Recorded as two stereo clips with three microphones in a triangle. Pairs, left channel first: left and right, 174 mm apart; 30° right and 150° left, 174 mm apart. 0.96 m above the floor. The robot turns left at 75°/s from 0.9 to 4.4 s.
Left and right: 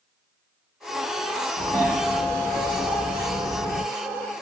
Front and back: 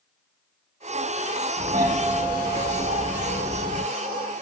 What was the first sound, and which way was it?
A doorbell, straight behind.